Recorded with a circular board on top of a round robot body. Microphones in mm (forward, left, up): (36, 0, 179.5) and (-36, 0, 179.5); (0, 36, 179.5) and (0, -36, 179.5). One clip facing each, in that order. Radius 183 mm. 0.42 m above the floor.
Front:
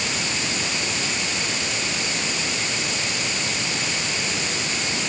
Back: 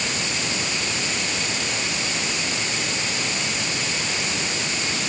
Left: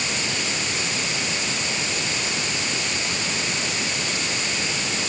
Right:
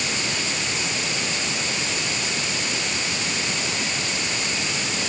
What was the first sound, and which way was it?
Only background noise.